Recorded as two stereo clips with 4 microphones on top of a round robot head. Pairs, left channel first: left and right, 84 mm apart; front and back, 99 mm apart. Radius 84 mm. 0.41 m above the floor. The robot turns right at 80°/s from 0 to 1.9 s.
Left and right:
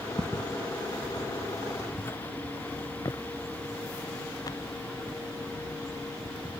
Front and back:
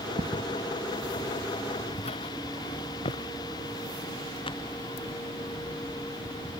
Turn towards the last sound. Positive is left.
turn(degrees=30)